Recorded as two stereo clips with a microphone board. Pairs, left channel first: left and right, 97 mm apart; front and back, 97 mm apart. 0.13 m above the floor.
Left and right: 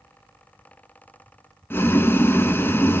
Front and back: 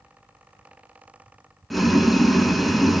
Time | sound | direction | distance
1.7 | boiling | 90° left | 0.9 m